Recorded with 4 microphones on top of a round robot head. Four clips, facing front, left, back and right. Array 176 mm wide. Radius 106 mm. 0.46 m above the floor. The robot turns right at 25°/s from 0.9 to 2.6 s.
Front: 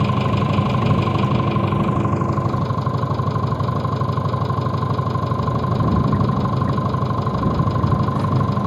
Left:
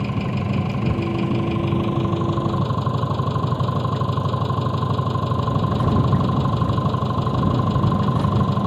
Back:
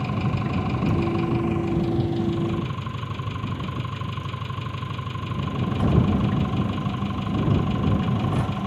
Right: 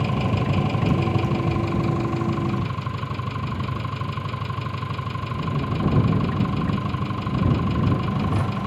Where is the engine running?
5° right; by 8.7 s 40° left.